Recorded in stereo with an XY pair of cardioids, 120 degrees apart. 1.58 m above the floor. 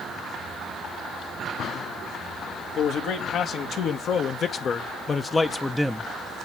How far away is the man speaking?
About 2 m.